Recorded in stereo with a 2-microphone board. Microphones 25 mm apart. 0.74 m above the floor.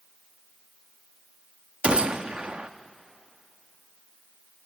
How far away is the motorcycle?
I don't hear a motorcycle.